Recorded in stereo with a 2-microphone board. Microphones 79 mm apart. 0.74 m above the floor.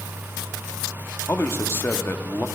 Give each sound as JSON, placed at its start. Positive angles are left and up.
{"t": 1.3, "sound": "a man speaking", "side_deg": 30, "distance_m": 1.0}